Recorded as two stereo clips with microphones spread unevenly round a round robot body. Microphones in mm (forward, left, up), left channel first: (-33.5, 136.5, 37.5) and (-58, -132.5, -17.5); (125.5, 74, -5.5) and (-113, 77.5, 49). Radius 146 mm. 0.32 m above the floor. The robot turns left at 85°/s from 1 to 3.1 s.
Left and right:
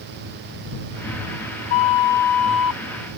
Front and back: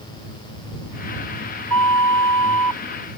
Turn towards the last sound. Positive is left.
turn(degrees=-80)